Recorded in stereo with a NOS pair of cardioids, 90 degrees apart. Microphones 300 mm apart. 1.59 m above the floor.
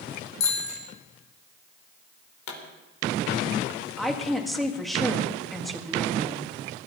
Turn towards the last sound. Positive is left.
turn(degrees=0)